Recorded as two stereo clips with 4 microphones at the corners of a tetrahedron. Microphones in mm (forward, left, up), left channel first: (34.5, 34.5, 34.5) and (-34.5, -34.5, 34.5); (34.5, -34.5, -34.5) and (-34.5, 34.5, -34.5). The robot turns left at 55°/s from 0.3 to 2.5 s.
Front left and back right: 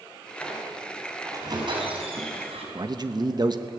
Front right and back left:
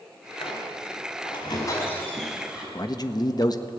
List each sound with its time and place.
0.4 s a squeak: 30° right, 5.5 m; by 2.6 s 145° right, 5.5 m
2.8 s a man speaking: 90° right, 1.4 m